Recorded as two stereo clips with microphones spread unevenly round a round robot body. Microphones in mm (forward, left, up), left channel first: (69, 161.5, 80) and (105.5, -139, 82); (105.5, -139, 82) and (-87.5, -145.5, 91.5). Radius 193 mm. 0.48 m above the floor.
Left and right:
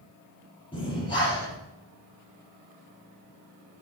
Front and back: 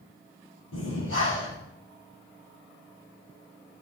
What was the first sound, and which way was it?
Breathing, 25° left.